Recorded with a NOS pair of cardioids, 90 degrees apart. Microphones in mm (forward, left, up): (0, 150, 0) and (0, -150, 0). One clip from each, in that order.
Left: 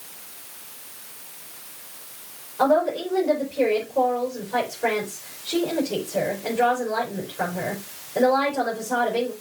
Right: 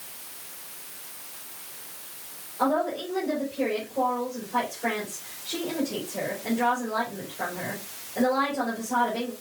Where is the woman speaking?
55° left, 4.5 m.